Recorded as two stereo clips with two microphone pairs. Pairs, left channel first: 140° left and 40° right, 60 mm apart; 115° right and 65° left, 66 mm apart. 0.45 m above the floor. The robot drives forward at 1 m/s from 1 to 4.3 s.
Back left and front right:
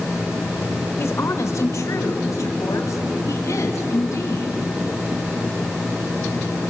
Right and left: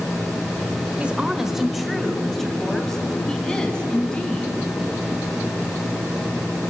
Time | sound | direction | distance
1.0 | a woman speaking | 130° left | 1.1 m